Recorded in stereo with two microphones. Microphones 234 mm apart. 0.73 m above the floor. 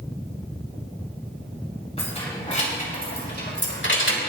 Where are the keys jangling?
25° left (ahead or behind), 3.5 m; by 4.3 s 65° left (ahead or behind), 1.7 m.